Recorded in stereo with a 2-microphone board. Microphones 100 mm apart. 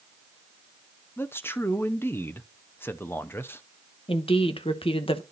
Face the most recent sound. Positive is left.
turn(degrees=65)  # may be behind; listen again after turning